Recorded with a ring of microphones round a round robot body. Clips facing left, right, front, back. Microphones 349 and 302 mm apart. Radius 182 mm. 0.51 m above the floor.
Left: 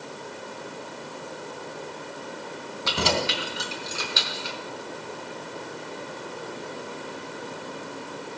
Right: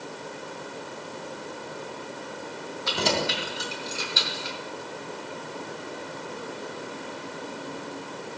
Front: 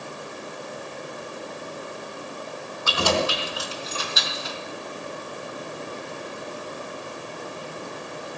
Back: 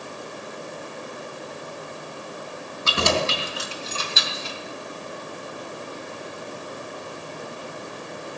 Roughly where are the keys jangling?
Behind left.